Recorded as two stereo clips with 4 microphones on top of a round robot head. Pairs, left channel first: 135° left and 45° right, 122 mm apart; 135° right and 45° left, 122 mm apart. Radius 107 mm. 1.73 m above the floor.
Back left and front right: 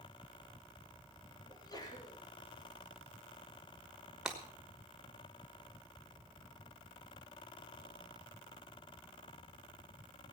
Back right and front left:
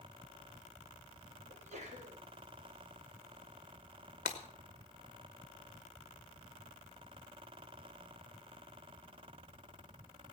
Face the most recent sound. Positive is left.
turn(degrees=-130)